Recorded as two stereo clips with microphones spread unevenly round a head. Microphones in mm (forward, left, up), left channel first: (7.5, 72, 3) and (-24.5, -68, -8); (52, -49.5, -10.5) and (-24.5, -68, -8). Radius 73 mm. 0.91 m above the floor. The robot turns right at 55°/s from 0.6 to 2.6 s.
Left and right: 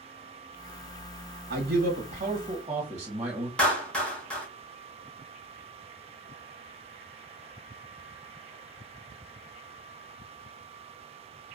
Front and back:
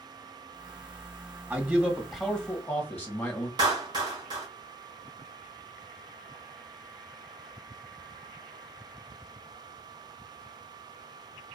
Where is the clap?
165° left, 0.8 m.